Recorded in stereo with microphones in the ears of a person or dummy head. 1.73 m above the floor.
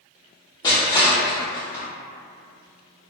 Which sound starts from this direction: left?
Crushing, at 0.6 s.